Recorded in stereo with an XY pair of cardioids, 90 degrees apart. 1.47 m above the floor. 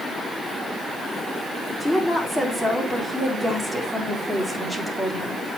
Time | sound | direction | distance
1.8 | a woman speaking | 10° left | 3.5 m